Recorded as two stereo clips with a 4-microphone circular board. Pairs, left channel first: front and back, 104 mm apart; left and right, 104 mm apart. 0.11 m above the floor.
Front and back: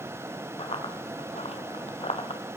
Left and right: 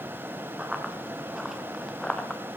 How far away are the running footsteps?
About 3 m.